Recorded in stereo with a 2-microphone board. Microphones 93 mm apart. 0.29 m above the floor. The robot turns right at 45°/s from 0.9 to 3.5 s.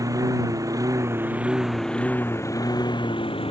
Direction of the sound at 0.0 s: 40° right.